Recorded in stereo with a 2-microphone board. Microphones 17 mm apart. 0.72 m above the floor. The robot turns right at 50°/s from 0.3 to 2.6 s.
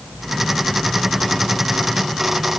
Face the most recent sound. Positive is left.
No sound to turn to.